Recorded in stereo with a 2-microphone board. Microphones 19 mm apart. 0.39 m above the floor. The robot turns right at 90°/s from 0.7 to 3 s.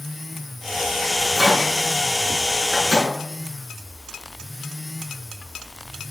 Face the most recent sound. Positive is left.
turn(degrees=-40)  # may be behind; listen again after turning